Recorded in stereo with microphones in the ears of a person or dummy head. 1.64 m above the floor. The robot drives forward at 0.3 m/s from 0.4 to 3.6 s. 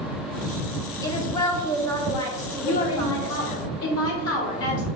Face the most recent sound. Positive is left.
turn(degrees=75)  # may be behind; listen again after turning